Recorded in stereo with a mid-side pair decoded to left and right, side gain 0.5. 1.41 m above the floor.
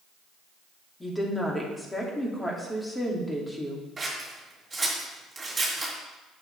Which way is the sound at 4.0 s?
20° right.